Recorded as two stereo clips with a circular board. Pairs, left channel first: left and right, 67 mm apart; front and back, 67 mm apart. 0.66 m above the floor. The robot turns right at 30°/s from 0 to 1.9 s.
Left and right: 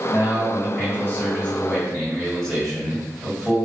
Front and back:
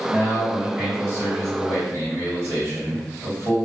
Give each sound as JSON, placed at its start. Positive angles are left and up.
{"t": 0.1, "sound": "a man speaking", "azimuth_deg": 115, "distance_m": 1.4}